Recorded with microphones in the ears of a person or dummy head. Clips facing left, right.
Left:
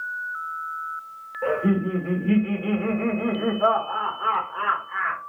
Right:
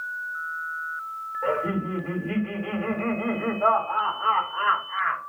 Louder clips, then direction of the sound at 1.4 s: Left 4 dB; 85° left.